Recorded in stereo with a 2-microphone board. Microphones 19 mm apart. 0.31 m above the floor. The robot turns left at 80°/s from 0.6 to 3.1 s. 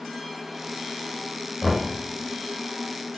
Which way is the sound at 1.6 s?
15° left (ahead or behind).